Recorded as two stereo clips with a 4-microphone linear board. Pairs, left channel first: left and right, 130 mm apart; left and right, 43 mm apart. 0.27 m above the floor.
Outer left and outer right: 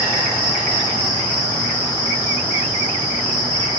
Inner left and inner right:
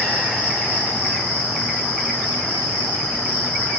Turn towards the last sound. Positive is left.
turn(degrees=45)  # may be behind; listen again after turning